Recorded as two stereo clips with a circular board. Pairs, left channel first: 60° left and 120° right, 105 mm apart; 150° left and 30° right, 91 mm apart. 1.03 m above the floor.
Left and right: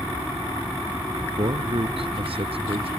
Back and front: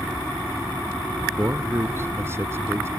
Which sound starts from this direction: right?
A man speaking, at 1.4 s.